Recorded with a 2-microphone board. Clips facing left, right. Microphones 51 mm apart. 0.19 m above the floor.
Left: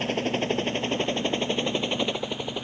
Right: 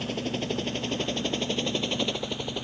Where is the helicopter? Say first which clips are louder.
Left 4 dB; 40° left (ahead or behind); by 2.6 s 15° left (ahead or behind).